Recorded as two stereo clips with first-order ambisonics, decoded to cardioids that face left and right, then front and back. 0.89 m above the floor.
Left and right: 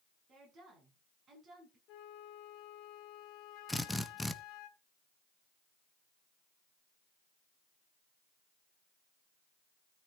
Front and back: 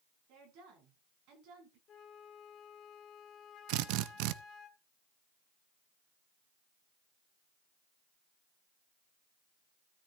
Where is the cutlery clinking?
I don't hear cutlery clinking.